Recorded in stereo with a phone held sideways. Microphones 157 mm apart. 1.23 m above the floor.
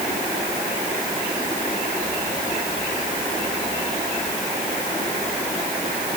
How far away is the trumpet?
No trumpet in this recording.